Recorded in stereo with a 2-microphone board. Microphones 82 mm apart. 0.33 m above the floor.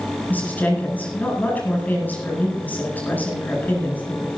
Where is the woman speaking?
20° left (ahead or behind), 9.5 m.